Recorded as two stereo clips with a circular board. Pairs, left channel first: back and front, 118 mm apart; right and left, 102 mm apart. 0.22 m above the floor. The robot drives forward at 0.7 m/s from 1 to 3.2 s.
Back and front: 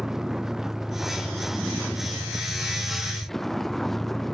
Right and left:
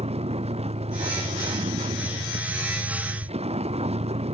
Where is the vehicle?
85° left; by 4.3 s 90° left.